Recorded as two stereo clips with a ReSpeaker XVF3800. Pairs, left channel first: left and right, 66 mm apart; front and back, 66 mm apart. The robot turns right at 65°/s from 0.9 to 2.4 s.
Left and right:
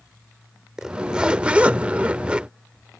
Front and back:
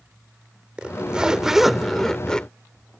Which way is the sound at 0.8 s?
150° right.